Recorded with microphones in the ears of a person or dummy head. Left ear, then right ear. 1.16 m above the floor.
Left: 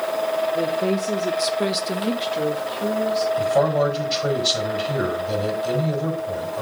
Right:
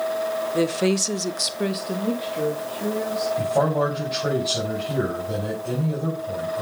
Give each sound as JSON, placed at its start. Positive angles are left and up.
{"t": 0.5, "sound": "a woman speaking", "side_deg": -75, "distance_m": 1.0}
{"t": 3.4, "sound": "a man speaking", "side_deg": 65, "distance_m": 4.5}